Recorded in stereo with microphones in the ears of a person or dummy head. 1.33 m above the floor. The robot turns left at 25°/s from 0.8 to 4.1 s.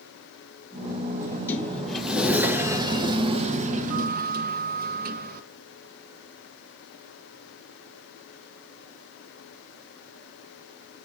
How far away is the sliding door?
About 0.8 m.